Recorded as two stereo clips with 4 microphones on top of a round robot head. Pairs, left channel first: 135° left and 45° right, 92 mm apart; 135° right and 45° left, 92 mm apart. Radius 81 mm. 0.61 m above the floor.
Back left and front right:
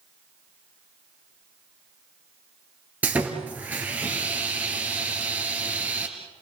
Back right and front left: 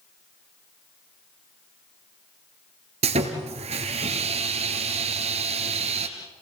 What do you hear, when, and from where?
3.0 s sawing: 30° left, 2 m